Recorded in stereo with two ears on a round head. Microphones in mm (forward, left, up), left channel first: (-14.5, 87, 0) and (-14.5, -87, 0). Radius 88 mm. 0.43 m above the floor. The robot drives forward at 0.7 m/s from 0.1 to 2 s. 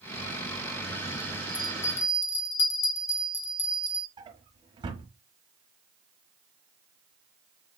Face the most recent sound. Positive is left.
turn(degrees=-25)  # may be behind; listen again after turning